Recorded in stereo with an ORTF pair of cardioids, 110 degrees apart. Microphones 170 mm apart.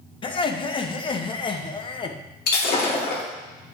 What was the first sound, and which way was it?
Laughter, 30° left.